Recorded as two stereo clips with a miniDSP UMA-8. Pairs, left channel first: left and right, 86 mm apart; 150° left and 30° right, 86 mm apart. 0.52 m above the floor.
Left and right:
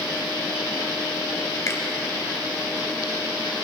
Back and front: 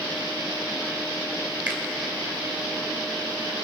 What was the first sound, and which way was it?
A finger snap, 40° left.